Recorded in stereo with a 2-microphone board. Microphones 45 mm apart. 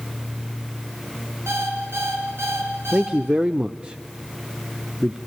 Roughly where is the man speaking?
Right.